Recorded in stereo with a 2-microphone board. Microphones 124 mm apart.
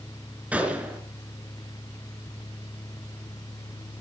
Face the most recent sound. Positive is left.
turn(degrees=-10)  # may be behind; listen again after turning